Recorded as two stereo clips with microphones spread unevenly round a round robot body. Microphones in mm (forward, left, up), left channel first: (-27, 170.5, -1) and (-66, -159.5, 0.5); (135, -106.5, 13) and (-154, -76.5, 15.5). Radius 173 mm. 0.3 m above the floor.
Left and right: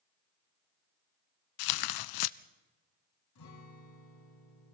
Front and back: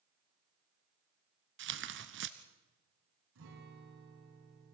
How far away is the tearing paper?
About 0.6 m.